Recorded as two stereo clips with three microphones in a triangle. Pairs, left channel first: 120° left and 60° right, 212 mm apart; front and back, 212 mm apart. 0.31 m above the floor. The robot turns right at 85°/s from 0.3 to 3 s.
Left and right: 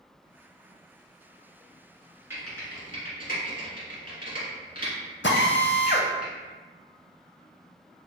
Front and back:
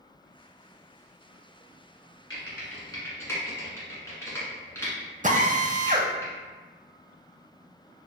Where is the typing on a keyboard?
20° left, 1.7 m; by 6.2 s 80° left, 1.7 m.